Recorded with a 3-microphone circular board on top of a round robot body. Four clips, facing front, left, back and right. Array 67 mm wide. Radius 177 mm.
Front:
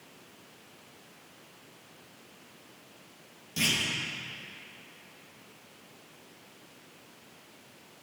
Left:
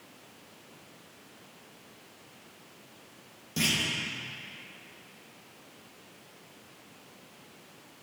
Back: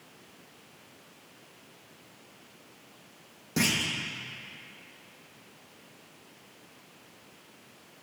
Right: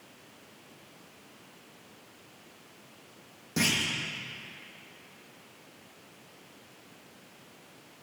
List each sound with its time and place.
3.6 s a clunk: 155° right, 0.8 m